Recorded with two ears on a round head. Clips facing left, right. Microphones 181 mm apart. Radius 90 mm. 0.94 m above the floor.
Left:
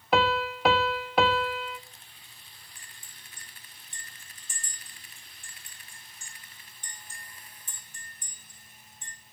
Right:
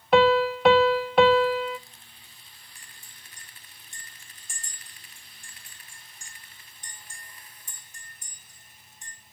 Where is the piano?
Centre (ahead or behind), 0.7 m.